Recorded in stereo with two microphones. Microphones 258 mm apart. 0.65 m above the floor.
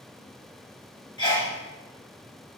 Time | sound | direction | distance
1.2 | a sneeze | 15° left (ahead or behind) | 1.2 m